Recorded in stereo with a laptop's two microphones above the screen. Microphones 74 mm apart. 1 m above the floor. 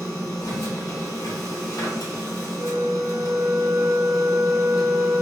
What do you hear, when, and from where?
0.0 s a machine running: 60° left (ahead or behind), 1.8 m
2.6 s a flute: 35° right (ahead or behind), 0.6 m